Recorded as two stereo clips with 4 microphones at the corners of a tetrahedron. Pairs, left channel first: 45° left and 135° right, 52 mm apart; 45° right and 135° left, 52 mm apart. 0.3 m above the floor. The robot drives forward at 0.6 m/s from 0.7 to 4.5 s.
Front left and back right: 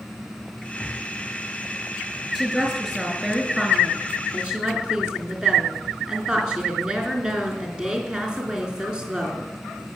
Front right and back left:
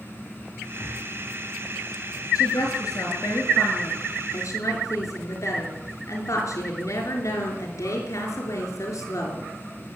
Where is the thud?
75° right, 9.5 m.